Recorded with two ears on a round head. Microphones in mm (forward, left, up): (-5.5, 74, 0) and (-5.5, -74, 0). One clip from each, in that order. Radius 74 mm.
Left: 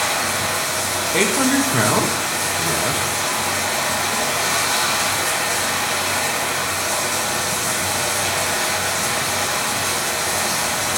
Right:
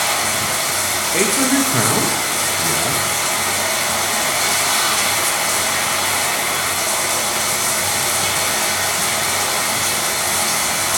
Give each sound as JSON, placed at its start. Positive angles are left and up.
{"t": 0.0, "sound": "running water", "side_deg": -70, "distance_m": 5.0}
{"t": 1.1, "sound": "a man speaking", "side_deg": 5, "distance_m": 1.3}